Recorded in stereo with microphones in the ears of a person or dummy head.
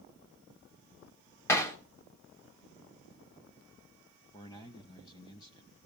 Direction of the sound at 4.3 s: 20° left (ahead or behind).